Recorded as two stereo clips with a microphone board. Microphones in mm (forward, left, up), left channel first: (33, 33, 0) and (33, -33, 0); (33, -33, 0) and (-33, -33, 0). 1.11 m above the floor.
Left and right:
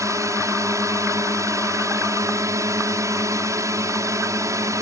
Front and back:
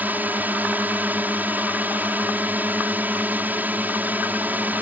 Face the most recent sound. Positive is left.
turn(degrees=-120)